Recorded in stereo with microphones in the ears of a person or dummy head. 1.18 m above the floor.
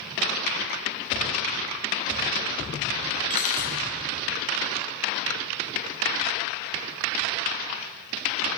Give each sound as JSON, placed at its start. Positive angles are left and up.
{"t": 3.3, "sound": "cutlery clinking", "side_deg": 45, "distance_m": 0.9}